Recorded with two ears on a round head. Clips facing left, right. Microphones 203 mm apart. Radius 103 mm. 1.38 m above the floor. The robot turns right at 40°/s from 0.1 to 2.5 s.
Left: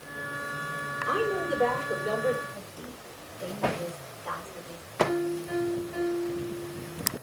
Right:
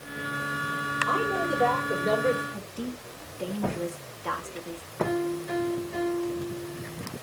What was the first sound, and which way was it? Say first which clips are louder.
A woman speaking: left 1 dB; 160° left.